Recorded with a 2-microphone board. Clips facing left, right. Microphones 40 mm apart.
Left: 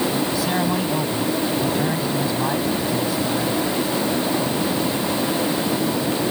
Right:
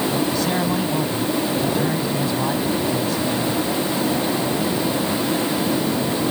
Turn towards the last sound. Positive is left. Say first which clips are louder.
# even
turn(degrees=5)  # may be behind; listen again after turning